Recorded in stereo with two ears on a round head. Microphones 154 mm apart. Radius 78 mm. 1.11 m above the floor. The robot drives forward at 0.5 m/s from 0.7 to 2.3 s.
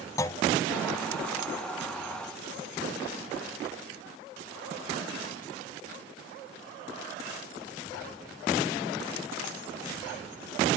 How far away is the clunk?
About 0.7 m.